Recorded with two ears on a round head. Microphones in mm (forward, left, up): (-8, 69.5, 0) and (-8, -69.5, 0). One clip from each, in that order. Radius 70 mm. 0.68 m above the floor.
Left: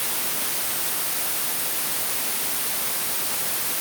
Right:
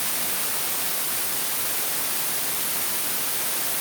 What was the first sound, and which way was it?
Only background noise.